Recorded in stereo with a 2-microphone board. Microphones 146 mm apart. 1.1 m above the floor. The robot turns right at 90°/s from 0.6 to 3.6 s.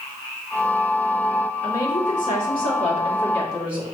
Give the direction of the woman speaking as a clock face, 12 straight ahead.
12 o'clock.